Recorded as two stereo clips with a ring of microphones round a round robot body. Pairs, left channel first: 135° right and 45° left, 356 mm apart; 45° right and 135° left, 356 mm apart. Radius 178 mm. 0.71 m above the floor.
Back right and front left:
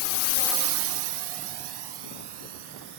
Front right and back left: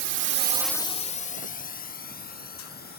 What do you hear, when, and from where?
0.0 s a drone: 170° right; by 3.0 s 20° left